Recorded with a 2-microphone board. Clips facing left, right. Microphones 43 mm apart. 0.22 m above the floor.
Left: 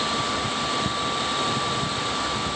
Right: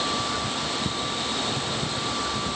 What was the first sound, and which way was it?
Only background noise.